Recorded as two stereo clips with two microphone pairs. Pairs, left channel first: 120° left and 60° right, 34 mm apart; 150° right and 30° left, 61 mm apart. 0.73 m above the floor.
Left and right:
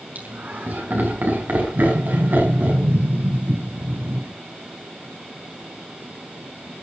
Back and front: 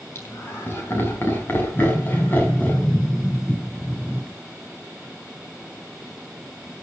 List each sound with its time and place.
0.1 s laughter: 95° right, 5.5 m; by 2.8 s 85° right, 5 m
1.8 s a sliding door: 70° right, 9 m